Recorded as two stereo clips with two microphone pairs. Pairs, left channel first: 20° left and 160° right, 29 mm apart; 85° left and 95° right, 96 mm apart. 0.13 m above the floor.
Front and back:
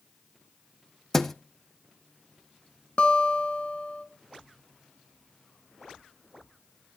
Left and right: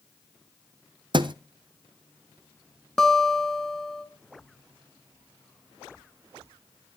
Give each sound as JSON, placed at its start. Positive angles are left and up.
{"t": 1.1, "sound": "a thud", "azimuth_deg": -60, "distance_m": 0.7}
{"t": 3.0, "sound": "a guitar", "azimuth_deg": 0, "distance_m": 1.2}